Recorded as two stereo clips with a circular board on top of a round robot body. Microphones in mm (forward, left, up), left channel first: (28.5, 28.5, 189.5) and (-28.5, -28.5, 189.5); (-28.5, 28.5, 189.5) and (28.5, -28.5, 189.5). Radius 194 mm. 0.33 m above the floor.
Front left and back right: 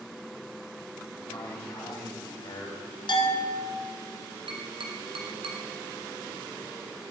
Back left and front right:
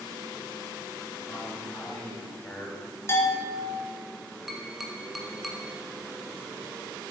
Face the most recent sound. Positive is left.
turn(degrees=-130)